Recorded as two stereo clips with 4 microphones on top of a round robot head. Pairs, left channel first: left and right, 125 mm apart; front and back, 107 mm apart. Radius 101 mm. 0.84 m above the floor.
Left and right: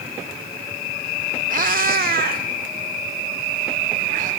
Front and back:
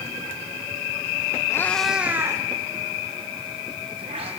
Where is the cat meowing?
70° right, 1.0 m; by 4.3 s 130° right, 3.5 m.